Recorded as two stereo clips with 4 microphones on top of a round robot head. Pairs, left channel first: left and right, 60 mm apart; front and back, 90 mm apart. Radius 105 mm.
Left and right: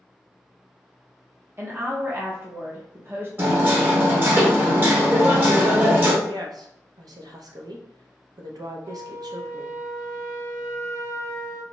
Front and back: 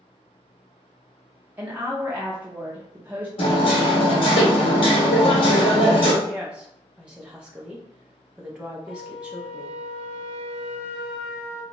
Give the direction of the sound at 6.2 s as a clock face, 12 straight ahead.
3 o'clock.